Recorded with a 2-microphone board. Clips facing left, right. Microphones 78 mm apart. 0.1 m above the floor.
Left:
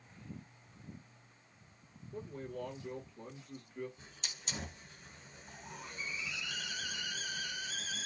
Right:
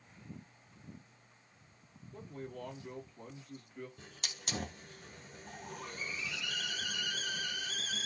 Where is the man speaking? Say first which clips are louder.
Left 2 dB; 15° left (ahead or behind), 1.4 m.